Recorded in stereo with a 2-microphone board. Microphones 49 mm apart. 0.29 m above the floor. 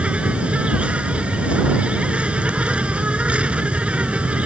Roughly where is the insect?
Right.